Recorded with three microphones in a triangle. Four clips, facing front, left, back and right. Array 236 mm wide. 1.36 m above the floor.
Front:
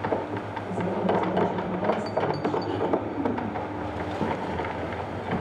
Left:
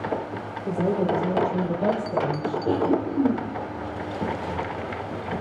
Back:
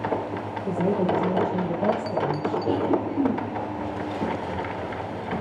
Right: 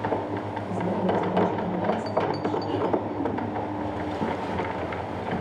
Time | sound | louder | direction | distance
0.7 | a woman speaking | left 4 dB, back 3 dB | 135° left | 4.5 m
2.7 | a cough | left 3 dB, back 3 dB | 120° left | 3.5 m